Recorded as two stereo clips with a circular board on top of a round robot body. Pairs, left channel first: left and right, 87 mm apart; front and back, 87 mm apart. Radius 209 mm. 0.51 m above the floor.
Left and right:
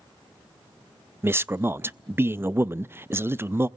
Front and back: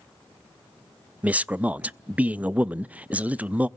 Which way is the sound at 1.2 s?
120° right.